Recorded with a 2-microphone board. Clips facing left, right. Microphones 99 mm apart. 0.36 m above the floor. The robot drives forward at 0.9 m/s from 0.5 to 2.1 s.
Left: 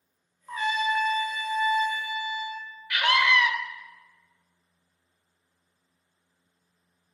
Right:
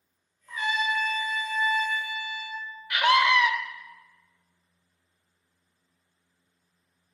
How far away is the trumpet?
About 0.9 m.